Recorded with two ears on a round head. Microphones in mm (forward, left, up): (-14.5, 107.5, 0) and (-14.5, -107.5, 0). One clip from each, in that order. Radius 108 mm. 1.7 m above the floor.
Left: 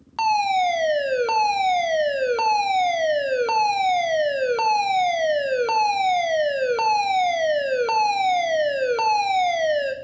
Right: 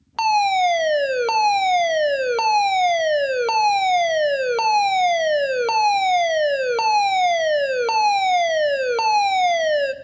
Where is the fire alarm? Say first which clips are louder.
Right 2 dB; 25° right (ahead or behind), 1.4 m.